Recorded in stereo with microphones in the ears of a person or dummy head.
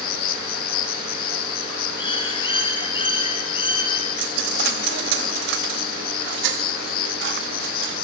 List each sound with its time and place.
0.0 s an insect: 45° left (ahead or behind), 1.3 m
2.0 s a bird: 35° left (ahead or behind), 1.5 m
4.2 s a dropped coin: 50° right (ahead or behind), 0.8 m